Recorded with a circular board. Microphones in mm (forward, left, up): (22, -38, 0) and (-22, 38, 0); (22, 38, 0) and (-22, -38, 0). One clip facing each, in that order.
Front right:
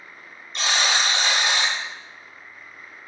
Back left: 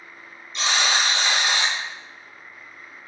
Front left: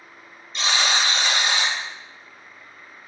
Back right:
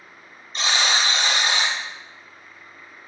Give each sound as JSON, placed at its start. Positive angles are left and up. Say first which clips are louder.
{"t": 0.5, "sound": "a buzzer", "louder": "even, even", "azimuth_deg": -85, "distance_m": 1.8}